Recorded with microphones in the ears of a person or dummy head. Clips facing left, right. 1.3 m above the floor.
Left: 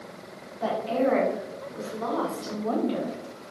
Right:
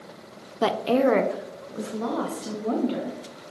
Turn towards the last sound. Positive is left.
turn(degrees=-35)  # may be behind; listen again after turning